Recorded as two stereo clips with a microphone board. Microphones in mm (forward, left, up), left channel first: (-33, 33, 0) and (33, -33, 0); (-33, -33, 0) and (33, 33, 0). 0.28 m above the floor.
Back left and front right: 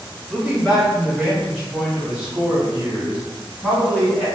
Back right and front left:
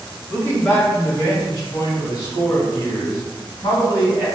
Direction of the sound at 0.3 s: 130° right.